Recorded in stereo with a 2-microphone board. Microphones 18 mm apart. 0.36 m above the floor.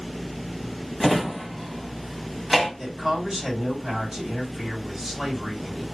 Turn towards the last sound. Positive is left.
turn(degrees=-5)  # may be behind; listen again after turning